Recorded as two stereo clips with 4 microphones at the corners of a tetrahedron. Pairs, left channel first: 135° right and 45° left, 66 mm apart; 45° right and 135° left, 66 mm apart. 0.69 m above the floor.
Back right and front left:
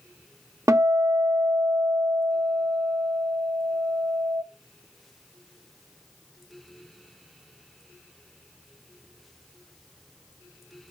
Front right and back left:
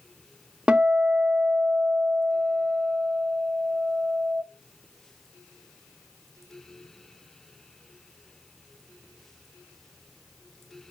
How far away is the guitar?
About 0.7 m.